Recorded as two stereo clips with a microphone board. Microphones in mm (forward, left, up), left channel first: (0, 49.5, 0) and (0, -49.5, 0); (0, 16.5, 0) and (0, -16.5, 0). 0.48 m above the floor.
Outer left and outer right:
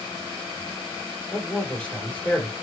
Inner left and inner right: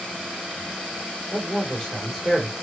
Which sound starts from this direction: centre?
A man speaking, at 1.3 s.